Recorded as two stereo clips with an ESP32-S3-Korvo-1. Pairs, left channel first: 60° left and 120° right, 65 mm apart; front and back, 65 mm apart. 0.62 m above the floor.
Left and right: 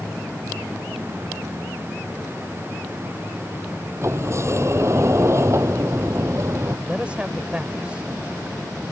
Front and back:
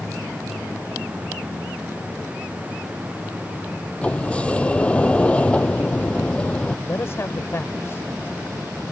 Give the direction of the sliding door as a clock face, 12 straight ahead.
2 o'clock.